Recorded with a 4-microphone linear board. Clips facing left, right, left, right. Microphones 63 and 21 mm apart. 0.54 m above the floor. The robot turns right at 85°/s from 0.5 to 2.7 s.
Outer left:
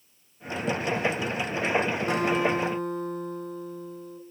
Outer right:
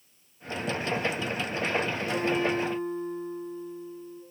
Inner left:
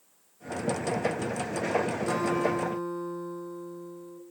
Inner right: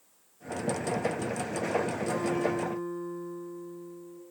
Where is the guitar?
45° left, 1.6 m; by 4.2 s 100° left, 1.6 m.